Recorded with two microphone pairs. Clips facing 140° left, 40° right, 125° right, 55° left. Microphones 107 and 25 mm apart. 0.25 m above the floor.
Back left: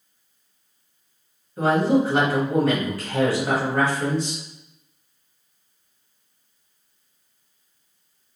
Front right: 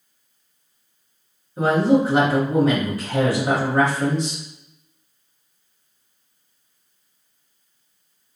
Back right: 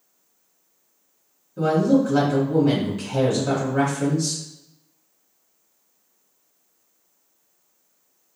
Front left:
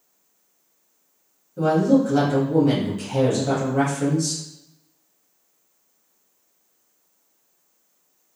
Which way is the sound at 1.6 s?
90° right.